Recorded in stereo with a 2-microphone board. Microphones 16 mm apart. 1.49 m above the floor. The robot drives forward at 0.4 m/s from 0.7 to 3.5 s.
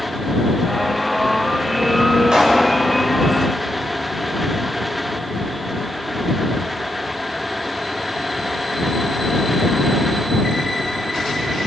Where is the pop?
80° right, 6 m.